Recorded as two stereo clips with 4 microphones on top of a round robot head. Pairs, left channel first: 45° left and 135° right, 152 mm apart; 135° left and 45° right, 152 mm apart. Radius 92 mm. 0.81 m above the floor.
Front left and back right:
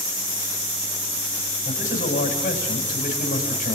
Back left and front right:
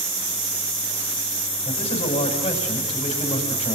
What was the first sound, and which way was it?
A man speaking, 85° left.